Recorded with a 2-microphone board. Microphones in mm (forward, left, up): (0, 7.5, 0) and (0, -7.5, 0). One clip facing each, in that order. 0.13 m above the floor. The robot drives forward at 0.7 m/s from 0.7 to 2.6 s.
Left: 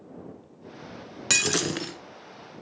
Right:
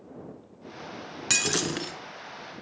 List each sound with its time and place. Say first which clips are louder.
1.3 s breaking glass: left 2 dB; 10° left (ahead or behind), 0.9 m